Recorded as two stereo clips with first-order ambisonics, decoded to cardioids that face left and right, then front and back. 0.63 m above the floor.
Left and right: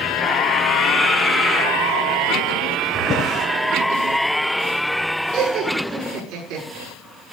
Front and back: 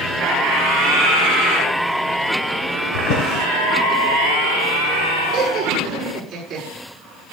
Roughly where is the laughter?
Right.